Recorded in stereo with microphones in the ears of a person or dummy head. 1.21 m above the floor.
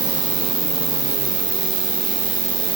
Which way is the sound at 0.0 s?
30° right (ahead or behind).